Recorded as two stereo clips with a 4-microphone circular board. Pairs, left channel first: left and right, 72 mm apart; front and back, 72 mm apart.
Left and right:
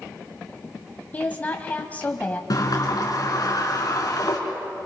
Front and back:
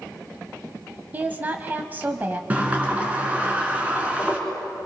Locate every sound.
1.1 s a woman speaking: 135° left, 1.2 m
2.5 s a sliding door: 110° left, 3 m